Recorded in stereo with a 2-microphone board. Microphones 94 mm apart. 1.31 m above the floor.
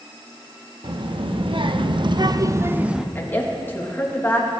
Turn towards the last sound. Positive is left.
turn(degrees=20)  # may be behind; listen again after turning